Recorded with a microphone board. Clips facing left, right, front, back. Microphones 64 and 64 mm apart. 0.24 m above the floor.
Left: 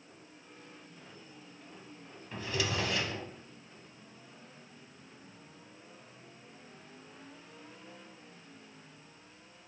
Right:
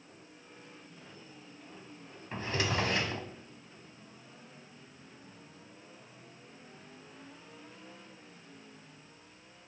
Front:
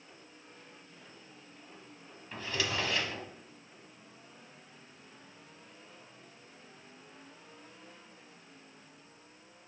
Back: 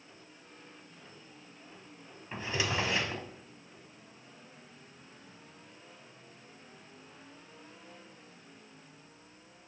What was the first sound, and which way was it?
A drawer, 120° right.